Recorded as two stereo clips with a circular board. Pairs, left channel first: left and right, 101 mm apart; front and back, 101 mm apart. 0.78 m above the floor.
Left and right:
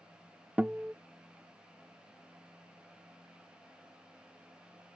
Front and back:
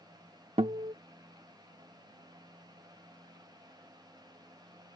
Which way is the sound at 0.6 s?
165° right.